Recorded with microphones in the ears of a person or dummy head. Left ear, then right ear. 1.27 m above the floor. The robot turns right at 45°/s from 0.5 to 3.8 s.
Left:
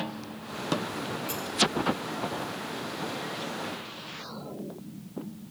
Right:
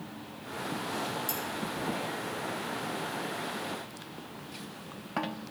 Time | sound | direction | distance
1.3 | cutlery clinking | 25° right (ahead or behind) | 4 m